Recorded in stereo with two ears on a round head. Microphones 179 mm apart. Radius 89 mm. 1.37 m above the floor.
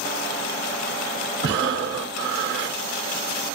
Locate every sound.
1.4 s breathing: 60° right (ahead or behind), 0.8 m